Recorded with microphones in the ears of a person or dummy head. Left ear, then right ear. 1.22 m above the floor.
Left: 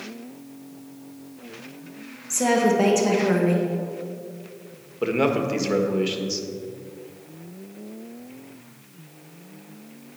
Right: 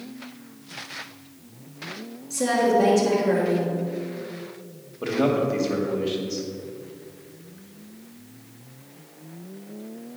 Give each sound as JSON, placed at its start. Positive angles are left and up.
{"t": 2.3, "sound": "a woman speaking", "side_deg": 50, "distance_m": 1.3}
{"t": 5.0, "sound": "a man speaking", "side_deg": 60, "distance_m": 1.4}